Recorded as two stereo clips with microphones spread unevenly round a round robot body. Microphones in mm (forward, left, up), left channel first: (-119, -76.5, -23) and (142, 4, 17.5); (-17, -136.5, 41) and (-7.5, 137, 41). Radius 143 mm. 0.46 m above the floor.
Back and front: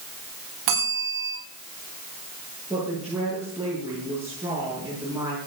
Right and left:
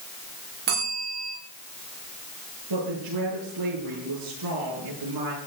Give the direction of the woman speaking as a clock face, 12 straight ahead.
9 o'clock.